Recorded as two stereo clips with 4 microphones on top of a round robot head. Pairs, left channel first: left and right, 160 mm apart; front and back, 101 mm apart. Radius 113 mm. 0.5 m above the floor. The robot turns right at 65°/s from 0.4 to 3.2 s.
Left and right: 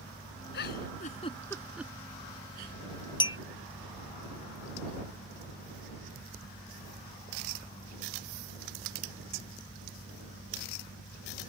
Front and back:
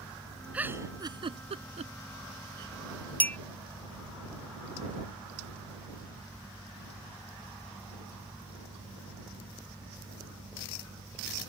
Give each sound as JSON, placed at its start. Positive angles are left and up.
{"t": 0.5, "sound": "a giggle", "azimuth_deg": 105}
{"t": 3.2, "sound": "a clink", "azimuth_deg": 65}